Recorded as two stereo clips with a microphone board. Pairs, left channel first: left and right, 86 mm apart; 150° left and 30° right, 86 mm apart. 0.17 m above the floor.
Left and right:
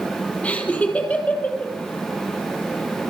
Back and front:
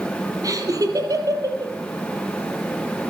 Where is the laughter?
15° left, 3.5 m.